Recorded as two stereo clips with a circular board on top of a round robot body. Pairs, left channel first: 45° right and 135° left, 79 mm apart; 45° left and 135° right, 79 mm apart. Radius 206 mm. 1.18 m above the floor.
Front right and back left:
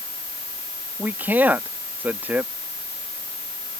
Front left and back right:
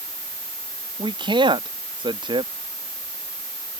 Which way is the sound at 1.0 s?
155° right.